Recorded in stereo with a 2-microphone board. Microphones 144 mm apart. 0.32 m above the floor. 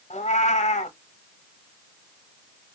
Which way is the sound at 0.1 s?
55° left (ahead or behind).